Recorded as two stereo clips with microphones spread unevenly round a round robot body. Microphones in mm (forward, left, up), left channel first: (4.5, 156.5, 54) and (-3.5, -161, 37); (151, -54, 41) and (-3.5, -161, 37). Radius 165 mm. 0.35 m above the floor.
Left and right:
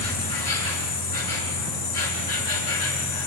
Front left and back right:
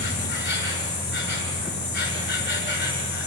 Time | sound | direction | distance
0.0 | an insect | 75° left | 6 m